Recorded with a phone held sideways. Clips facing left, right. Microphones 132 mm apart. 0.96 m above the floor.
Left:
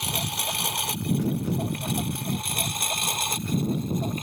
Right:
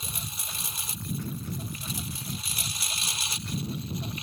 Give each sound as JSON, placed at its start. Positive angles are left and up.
{"t": 0.0, "sound": "a lawn mower", "side_deg": 75}